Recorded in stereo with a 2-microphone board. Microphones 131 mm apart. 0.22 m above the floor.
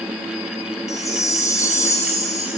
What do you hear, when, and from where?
0.9 s a chime: 25° left (ahead or behind), 1.1 m